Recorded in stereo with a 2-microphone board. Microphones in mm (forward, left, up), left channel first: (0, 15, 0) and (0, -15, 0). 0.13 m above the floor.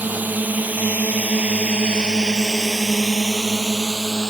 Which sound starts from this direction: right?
A drone, at 0.0 s.